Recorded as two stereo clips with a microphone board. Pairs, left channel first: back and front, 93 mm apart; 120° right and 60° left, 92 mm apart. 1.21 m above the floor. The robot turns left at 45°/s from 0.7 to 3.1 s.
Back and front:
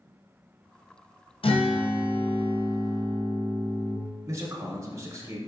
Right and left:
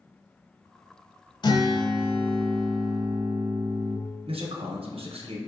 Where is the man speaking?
60° left, 0.7 m.